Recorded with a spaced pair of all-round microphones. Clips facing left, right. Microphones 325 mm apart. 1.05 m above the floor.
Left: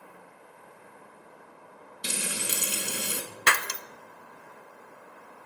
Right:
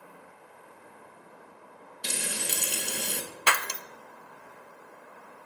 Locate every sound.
2.0 s frying: 10° left (ahead or behind), 1.3 m
3.5 s breaking glass: 25° left (ahead or behind), 0.5 m